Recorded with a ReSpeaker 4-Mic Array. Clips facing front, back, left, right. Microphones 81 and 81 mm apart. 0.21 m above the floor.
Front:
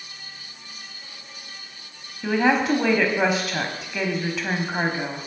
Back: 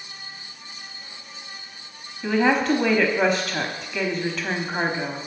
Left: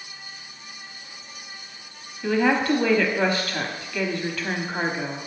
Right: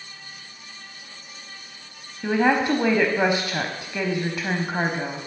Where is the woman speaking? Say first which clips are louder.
Even, right 1 dB; 75° right, 1.0 m.